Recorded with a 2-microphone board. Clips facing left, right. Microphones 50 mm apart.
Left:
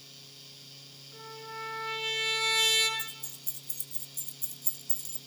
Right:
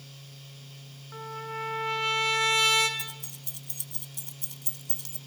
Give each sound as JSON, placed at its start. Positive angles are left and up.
{"t": 1.1, "sound": "a trumpet", "side_deg": -55, "distance_m": 5.5}
{"t": 3.0, "sound": "keys jangling", "side_deg": -70, "distance_m": 1.2}